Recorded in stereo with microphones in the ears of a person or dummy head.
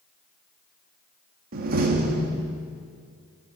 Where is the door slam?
50° right (ahead or behind), 2 m.